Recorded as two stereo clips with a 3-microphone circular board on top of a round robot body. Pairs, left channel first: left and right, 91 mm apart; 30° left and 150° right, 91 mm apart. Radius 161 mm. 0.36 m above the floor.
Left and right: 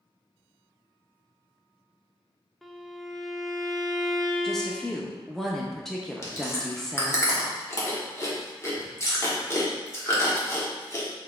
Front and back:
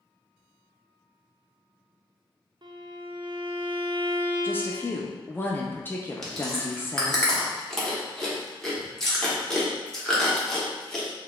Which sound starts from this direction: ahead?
A woman speaking, at 4.4 s.